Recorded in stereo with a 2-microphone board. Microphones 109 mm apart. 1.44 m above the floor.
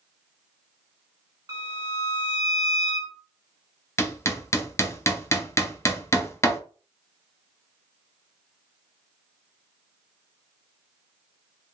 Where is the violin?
35° right (ahead or behind), 0.7 m.